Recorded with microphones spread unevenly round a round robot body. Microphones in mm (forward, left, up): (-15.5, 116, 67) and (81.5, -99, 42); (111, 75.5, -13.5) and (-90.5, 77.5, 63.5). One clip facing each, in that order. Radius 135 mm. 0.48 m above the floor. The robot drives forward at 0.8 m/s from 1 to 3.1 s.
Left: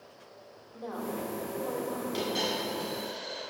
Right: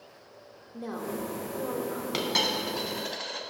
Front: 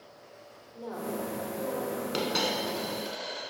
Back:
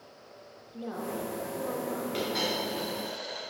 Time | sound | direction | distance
0.7 | a woman speaking | 95° right | 1.3 m
2.1 | a dropped coin | 50° right | 1.5 m